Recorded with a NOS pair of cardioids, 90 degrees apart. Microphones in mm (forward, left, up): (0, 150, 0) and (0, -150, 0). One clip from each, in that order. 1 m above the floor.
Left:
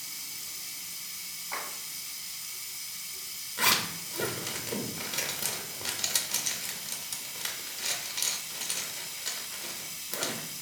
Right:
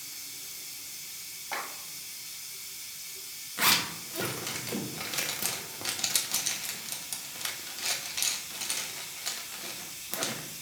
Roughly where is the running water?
Ahead left.